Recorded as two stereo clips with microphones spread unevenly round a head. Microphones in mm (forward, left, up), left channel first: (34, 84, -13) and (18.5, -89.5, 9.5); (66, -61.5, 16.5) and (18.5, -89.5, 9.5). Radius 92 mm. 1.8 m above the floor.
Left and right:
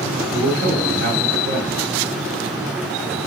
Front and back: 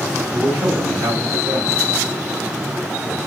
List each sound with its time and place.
0.3 s a man speaking: 145° right, 1.6 m